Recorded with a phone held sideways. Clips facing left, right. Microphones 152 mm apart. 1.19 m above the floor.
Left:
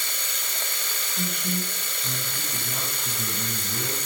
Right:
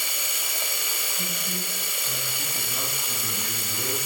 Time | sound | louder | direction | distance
0.0 | running water | right 1 dB | 10° right (ahead or behind) | 2.5 m
1.1 | a man speaking | left 7 dB | 70° left (ahead or behind) | 8 m